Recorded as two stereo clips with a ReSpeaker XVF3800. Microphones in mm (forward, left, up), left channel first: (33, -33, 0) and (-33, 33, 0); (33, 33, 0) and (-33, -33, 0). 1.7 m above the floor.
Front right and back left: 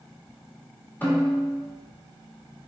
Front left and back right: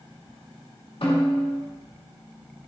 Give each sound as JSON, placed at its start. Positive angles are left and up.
{"t": 1.0, "sound": "a snare drum", "azimuth_deg": 25, "distance_m": 2.5}